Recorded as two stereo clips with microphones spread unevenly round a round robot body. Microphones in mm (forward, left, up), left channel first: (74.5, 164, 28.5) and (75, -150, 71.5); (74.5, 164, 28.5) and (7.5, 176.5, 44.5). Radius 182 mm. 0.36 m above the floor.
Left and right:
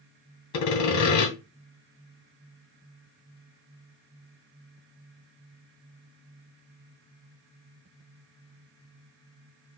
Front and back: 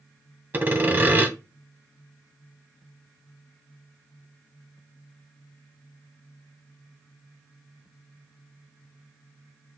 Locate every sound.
0.5 s sawing: 105° left, 2 m